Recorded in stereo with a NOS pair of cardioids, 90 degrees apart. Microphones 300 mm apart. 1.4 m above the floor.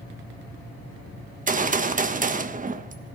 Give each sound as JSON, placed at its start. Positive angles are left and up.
{"t": 1.5, "sound": "a gunshot", "azimuth_deg": -30, "distance_m": 1.4}